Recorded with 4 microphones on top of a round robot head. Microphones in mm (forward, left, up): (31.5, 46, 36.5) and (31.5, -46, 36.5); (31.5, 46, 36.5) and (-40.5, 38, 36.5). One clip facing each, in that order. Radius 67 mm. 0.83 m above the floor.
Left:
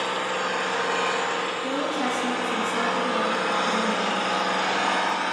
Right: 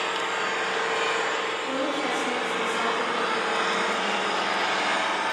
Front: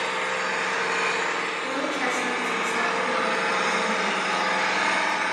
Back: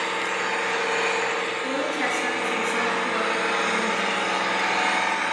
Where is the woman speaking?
100° left, 9.5 m.